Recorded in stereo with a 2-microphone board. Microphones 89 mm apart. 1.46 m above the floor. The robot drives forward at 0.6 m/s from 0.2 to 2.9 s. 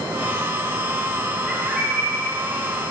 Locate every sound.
1.5 s a bird: 5° right (ahead or behind), 1.5 m